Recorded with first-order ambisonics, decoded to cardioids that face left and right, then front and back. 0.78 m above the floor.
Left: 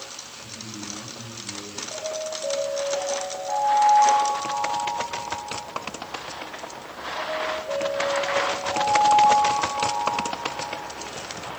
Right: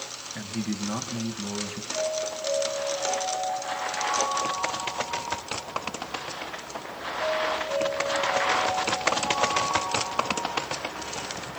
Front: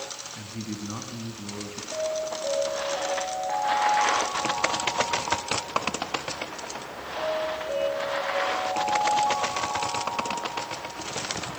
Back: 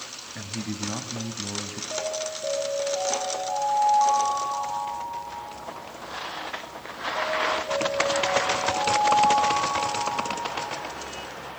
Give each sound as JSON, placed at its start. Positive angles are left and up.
{"t": 0.3, "sound": "a man speaking", "azimuth_deg": -130, "distance_m": 4.5}
{"t": 1.9, "sound": "an alarm", "azimuth_deg": 140, "distance_m": 10.0}